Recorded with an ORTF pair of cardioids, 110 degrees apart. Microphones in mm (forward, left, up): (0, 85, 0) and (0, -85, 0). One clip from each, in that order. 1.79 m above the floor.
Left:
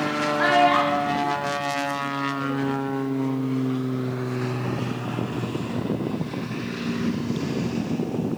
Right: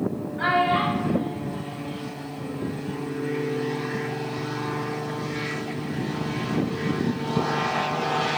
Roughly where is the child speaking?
Ahead left.